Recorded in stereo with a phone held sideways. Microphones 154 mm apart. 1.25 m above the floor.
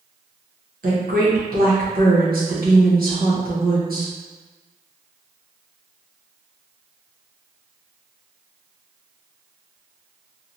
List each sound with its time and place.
0.8 s a woman speaking: 75° right (ahead or behind), 1.0 m